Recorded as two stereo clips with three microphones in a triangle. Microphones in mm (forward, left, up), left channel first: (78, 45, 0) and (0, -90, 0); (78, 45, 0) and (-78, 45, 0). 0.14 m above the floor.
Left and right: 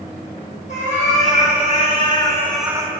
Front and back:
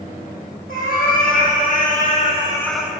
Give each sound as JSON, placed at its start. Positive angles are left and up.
{"t": 0.7, "sound": "a cat meowing", "azimuth_deg": 20, "distance_m": 2.0}